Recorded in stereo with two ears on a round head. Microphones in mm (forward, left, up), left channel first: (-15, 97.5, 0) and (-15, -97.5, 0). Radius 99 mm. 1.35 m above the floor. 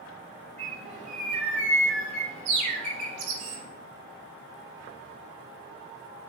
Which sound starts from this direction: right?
A bird, at 0.6 s.